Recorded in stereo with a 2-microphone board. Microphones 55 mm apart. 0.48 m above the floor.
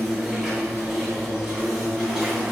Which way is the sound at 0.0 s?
10° right (ahead or behind).